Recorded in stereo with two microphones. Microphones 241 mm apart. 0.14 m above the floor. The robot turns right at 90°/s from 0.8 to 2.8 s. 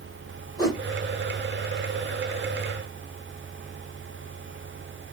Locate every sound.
0.6 s a whoosh: 15° left (ahead or behind), 3 m